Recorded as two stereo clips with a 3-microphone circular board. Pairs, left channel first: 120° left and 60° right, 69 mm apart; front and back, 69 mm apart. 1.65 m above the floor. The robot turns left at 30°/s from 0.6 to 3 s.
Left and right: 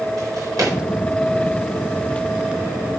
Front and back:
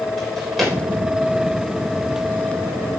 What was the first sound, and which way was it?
A drawer, 90° right.